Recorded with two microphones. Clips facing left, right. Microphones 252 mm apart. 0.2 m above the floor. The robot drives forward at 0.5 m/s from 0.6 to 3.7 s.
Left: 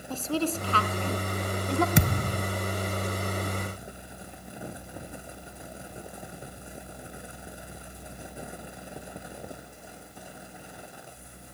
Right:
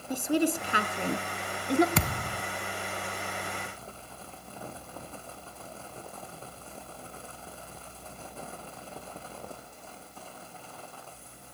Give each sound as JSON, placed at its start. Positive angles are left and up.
{"t": 0.1, "sound": "a woman speaking", "side_deg": -15, "distance_m": 2.0}
{"t": 1.9, "sound": "a thud", "side_deg": 20, "distance_m": 0.6}